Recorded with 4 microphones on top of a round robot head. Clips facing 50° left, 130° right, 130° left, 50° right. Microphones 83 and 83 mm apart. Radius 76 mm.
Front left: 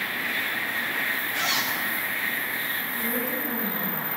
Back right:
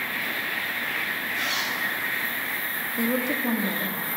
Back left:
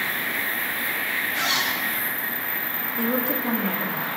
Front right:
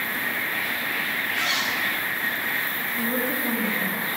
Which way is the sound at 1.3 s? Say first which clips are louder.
Front left 1 dB, back left 2 dB; 70° left.